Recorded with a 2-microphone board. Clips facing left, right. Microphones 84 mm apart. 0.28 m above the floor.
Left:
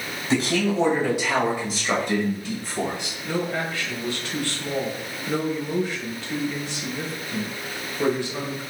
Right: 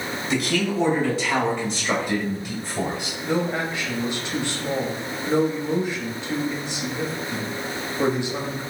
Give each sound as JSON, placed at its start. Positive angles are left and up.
{"t": 0.3, "sound": "a man speaking", "side_deg": 35, "distance_m": 1.9}
{"t": 3.2, "sound": "a man speaking", "side_deg": -20, "distance_m": 1.0}